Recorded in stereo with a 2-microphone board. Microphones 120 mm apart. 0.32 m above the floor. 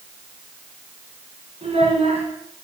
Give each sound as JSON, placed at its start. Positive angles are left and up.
{"t": 1.6, "sound": "a child speaking", "side_deg": -60, "distance_m": 1.7}